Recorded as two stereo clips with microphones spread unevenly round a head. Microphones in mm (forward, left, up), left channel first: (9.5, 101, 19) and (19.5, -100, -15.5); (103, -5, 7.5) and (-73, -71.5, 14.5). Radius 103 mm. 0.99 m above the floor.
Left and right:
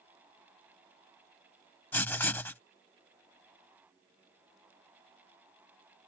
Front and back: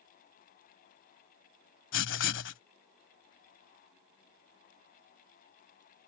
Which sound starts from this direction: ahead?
Writing, at 1.9 s.